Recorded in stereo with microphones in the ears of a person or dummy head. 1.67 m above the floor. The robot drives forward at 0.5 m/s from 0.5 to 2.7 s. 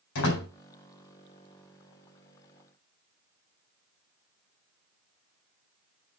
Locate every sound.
0.1 s a door slam: 70° left (ahead or behind), 4 m